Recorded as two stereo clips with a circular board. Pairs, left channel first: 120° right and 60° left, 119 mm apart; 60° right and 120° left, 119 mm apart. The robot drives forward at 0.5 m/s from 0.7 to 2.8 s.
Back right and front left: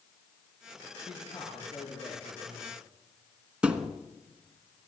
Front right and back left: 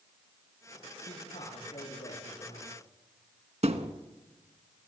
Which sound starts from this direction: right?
A man speaking, at 1.1 s.